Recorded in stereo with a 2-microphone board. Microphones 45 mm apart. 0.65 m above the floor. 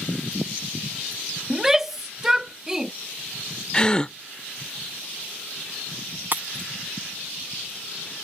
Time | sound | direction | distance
1.5 | a shout | 10° right (ahead or behind) | ?
3.7 | a gasp | 20° left (ahead or behind) | ?
6.3 | breaking glass | 45° right (ahead or behind) | ?